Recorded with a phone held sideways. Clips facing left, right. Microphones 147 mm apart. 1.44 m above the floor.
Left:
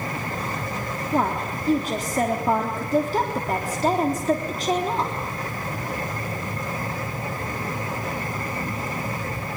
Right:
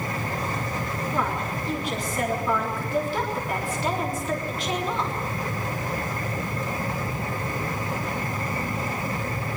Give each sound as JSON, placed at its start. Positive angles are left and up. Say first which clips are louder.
{"t": 1.1, "sound": "a woman speaking", "louder": "left 6 dB", "side_deg": 45, "distance_m": 3.5}